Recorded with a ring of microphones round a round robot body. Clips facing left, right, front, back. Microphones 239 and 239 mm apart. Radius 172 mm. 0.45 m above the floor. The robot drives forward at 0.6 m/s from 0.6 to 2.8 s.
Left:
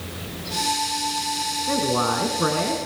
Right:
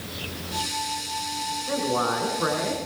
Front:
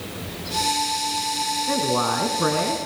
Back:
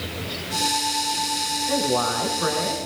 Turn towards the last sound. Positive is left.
turn(degrees=40)